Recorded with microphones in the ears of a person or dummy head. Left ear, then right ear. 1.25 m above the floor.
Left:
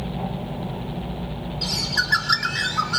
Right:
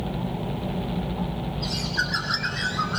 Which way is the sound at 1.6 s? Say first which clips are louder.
Left 4 dB; 85° left.